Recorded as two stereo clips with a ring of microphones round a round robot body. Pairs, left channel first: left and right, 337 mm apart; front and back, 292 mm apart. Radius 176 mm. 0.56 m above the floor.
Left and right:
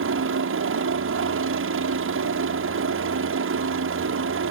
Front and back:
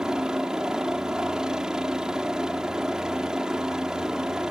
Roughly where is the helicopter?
Right.